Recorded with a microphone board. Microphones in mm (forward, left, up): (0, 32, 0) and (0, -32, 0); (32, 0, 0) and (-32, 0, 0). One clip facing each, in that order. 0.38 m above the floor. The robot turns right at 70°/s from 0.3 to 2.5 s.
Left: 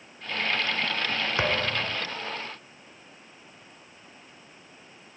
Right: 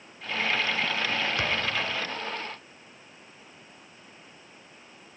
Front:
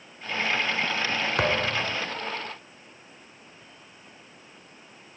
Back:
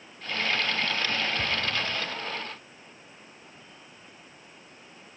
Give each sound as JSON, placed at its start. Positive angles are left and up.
{"t": 1.4, "sound": "a thud", "azimuth_deg": 20}